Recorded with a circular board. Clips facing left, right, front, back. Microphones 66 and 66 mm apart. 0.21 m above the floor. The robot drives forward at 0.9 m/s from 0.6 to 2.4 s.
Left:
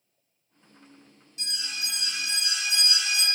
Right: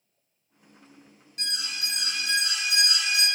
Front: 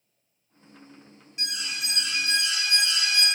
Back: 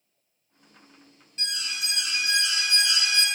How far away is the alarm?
About 1.6 m.